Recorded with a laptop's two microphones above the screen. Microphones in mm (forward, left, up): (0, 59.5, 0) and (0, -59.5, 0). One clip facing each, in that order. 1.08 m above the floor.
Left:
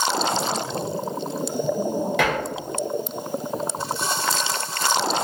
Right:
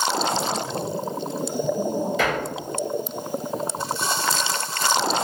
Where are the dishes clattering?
75° left (ahead or behind), 0.9 m.